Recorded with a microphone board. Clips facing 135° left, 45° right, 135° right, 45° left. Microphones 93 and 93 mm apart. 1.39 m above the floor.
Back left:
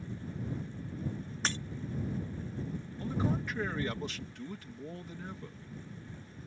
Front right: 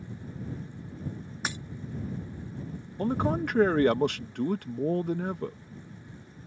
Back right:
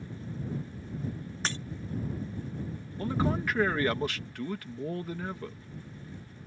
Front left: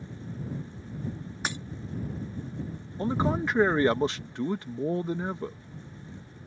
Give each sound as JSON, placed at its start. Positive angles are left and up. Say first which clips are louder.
{"t": 1.4, "sound": "breaking glass", "louder": "front right 1 dB, front left 1 dB", "azimuth_deg": 5}
{"t": 3.0, "sound": "a man speaking", "louder": "front right 7 dB, front left 3 dB", "azimuth_deg": -20}